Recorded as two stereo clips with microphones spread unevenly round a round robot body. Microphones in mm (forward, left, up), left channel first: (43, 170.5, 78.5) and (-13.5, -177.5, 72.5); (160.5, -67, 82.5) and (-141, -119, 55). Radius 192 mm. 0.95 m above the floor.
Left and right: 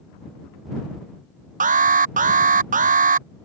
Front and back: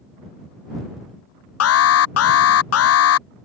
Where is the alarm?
35° right.